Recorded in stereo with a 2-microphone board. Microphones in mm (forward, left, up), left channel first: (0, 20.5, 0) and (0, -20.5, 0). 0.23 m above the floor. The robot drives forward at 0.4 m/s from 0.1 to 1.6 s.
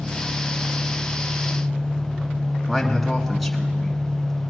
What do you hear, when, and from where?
0.0 s an engine running: 70° right (ahead or behind), 2 m; by 4.5 s 60° right (ahead or behind), 2 m
2.7 s a man speaking: centre (ahead or behind), 1.9 m